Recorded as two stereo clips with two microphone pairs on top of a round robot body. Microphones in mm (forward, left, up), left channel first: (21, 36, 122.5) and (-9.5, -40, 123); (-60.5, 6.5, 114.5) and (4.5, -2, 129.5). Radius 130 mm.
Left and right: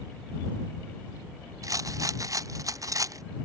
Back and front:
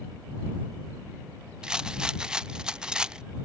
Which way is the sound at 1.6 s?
95° right.